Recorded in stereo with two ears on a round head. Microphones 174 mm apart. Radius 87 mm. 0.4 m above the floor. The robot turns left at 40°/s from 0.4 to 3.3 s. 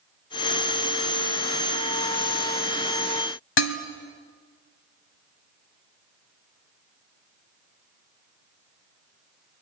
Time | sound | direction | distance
3.6 | dishes clattering | 60° left (ahead or behind) | 1.7 m